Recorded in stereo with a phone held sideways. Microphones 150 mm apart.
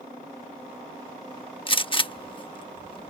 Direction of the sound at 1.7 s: 35° left (ahead or behind).